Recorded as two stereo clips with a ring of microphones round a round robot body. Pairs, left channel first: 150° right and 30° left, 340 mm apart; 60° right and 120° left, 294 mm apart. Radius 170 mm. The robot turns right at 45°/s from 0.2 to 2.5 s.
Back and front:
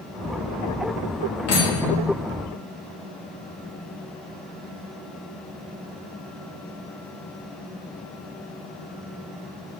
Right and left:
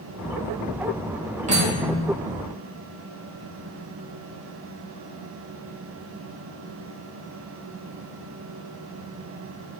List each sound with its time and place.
1.5 s cutlery clinking: straight behind, 0.9 m; by 2.0 s 155° right, 0.9 m